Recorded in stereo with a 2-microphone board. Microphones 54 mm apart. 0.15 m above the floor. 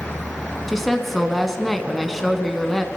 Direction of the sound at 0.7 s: 5° left (ahead or behind).